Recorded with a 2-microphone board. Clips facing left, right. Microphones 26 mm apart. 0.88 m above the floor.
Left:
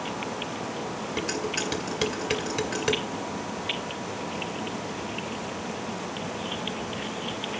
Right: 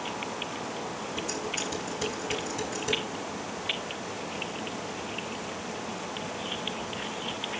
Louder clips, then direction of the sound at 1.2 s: Left 4 dB; 65° left (ahead or behind).